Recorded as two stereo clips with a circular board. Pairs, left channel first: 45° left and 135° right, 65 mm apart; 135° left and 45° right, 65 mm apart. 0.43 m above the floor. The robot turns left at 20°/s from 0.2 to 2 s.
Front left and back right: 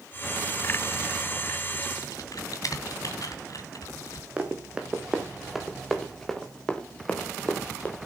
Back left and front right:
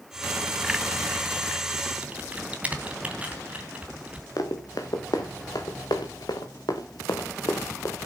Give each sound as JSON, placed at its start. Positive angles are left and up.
{"t": 2.0, "sound": "typing on a keyboard", "azimuth_deg": 25, "distance_m": 2.5}
{"t": 4.4, "sound": "running footsteps", "azimuth_deg": 155, "distance_m": 3.5}